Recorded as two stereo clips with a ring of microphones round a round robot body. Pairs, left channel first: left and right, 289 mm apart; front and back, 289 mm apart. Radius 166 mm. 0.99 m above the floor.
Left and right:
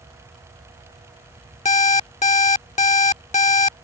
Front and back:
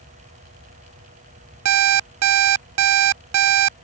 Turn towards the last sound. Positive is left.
turn(degrees=155)